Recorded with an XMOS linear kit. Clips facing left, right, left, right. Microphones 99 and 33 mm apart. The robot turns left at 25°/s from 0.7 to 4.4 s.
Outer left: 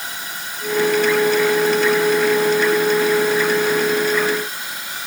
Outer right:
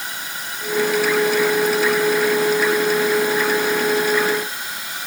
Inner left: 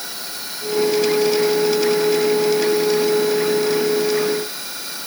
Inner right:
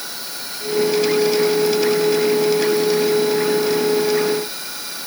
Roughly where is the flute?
I don't hear a flute.